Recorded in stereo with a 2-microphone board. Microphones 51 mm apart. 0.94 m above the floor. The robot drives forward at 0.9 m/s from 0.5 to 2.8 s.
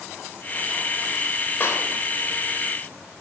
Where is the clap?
40° left (ahead or behind), 3 m; by 1.9 s 45° left (ahead or behind), 3 m.